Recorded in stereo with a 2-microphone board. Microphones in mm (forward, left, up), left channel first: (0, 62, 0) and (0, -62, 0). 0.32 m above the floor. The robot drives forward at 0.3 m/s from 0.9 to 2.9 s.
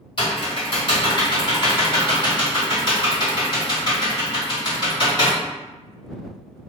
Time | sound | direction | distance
0.2 | typing on a keyboard | 45° left (ahead or behind) | 1.7 m